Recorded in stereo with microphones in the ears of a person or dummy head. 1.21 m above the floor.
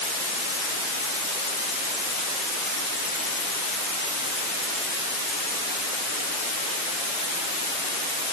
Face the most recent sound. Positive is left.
No sound to turn to.